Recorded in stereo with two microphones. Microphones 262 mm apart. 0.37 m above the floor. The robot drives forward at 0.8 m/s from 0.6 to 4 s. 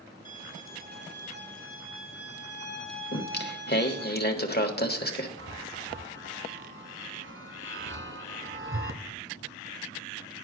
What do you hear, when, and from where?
0.2 s a violin: 30° right (ahead or behind), 1.9 m; by 4.1 s 35° right (ahead or behind), 1.7 m
3.1 s singing: 40° left (ahead or behind), 1.1 m
5.4 s a chime: 50° right (ahead or behind), 1.2 m